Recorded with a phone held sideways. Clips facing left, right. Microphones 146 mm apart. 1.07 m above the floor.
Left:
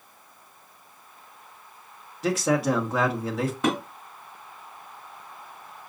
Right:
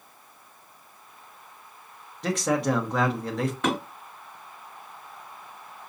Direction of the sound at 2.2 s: 5° left (ahead or behind).